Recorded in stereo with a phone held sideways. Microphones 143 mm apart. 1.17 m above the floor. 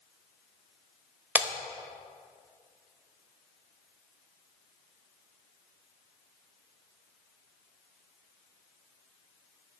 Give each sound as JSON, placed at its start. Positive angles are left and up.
{"t": 1.4, "sound": "breaking glass", "side_deg": -10, "distance_m": 0.6}